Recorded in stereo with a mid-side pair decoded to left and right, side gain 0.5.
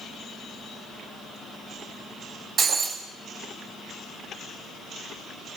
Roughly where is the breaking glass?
Ahead right.